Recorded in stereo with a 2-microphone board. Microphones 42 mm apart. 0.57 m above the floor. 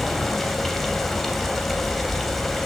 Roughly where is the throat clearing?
No throat clearing in this recording.